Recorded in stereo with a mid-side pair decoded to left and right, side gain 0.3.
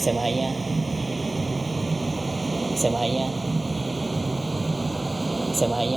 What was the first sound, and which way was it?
A vehicle, 35° right.